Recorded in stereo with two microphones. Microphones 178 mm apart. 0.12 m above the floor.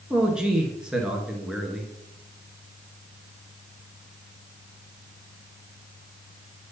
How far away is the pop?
I don't hear a pop.